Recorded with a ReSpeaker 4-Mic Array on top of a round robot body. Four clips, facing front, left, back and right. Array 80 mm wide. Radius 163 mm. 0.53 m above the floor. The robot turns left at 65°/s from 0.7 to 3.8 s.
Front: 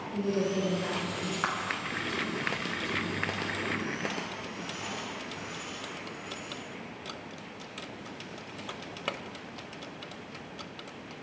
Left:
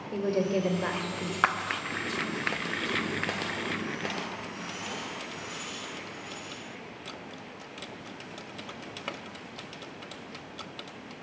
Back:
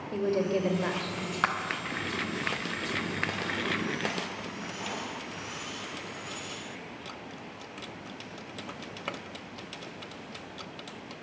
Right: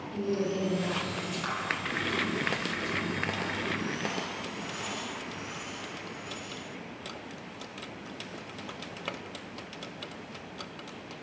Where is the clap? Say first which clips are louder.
Left 10 dB, back 4 dB; 110° left, 1.4 m; by 1.6 s 100° left, 1.4 m.